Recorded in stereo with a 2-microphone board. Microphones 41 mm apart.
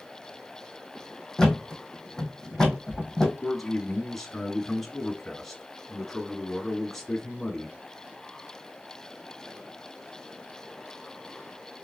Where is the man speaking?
5° left (ahead or behind), 1.5 m.